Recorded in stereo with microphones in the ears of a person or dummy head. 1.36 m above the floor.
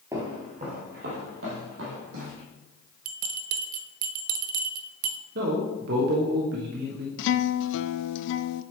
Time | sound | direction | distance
0.1 | footsteps | 15° right (ahead or behind) | 1.8 m
3.0 | a bell | 45° right (ahead or behind) | 0.7 m
5.3 | a man speaking | 55° right (ahead or behind) | 1.0 m
7.2 | a guitar | 65° left (ahead or behind) | 0.5 m